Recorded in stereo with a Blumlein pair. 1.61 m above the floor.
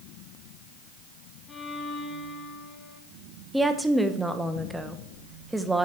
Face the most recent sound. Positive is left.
turn(degrees=-5)